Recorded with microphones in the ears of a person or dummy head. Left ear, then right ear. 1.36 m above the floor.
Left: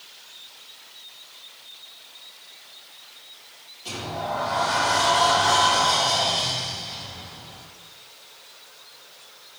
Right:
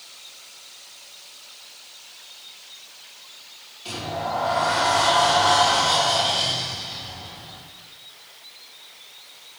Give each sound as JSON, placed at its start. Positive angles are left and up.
{"t": 3.9, "sound": "a sliding door", "side_deg": -15, "distance_m": 2.0}